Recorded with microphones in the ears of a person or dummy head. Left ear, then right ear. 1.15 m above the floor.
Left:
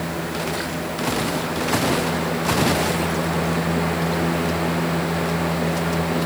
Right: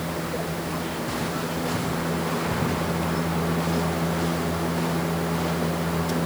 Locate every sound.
Only background noise.